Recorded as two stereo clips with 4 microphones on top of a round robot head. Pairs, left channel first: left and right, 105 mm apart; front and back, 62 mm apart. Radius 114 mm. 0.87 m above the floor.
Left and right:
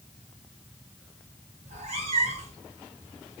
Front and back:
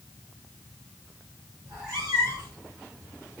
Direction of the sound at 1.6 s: 105° right.